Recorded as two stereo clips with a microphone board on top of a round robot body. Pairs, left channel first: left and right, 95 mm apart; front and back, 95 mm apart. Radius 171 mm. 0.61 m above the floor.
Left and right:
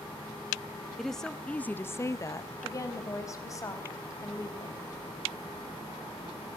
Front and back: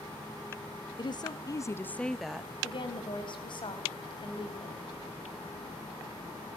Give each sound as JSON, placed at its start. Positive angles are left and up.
{"t": 1.0, "sound": "a woman speaking", "azimuth_deg": 0, "distance_m": 1.5}
{"t": 2.6, "sound": "a woman speaking", "azimuth_deg": 35, "distance_m": 4.5}